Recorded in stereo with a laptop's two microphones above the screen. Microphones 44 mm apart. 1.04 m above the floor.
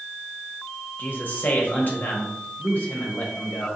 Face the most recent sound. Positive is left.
turn(degrees=45)  # may be behind; listen again after turning